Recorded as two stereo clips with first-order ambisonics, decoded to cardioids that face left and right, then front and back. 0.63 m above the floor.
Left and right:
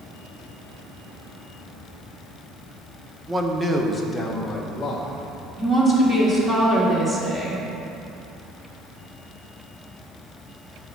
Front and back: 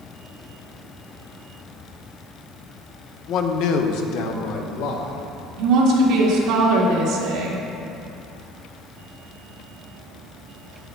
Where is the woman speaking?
160° right, 1.7 m.